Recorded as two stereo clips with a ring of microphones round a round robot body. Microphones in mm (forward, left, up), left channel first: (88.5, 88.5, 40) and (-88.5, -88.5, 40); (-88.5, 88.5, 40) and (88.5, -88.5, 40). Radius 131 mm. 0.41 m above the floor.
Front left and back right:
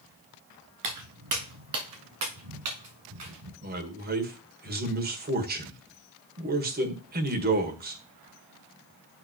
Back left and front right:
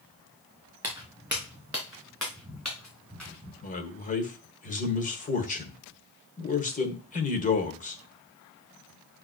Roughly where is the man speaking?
Behind.